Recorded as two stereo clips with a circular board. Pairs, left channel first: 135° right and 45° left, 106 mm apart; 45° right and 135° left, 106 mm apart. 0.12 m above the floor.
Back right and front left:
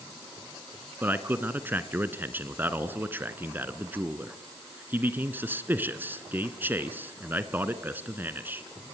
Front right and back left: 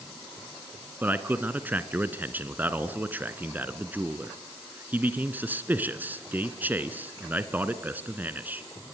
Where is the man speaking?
90° left, 1.4 m.